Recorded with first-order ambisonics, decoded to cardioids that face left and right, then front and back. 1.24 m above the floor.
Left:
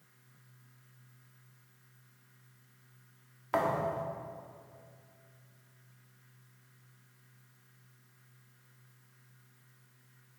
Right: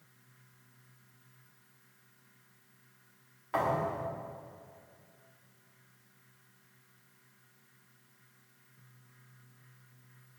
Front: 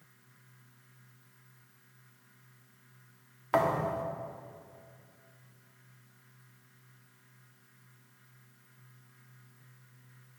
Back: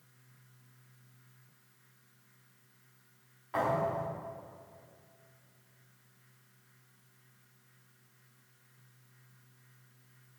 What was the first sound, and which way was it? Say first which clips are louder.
A thud: even, front 3 dB; 30° left.